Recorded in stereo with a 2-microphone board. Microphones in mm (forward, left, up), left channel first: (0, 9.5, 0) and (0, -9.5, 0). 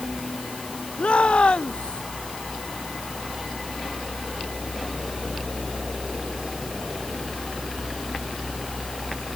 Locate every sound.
1.0 s a shout: 65° left (ahead or behind)